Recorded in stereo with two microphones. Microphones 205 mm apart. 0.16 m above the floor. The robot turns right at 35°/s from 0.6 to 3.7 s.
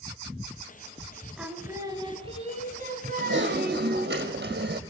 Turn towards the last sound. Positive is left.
turn(degrees=-55)  # may be behind; listen again after turning